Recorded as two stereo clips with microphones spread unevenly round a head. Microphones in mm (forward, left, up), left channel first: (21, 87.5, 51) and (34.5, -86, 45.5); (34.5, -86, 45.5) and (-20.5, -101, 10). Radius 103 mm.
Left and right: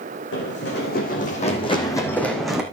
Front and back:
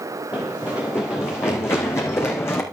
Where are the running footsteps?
80° left, 3 m; by 2.6 s straight ahead, 3 m.